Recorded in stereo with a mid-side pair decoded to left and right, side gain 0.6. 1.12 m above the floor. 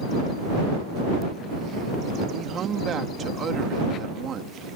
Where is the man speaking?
45° right.